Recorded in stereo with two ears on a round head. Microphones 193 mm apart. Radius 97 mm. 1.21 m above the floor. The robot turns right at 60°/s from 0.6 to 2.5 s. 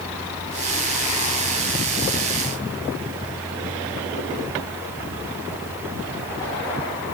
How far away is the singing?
No singing in this recording.